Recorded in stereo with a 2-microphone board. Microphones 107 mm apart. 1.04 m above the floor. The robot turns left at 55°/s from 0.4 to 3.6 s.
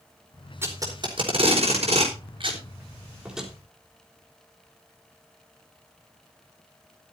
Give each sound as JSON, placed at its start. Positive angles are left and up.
{"t": 0.6, "sound": "tape being pulled", "side_deg": -25, "distance_m": 4.5}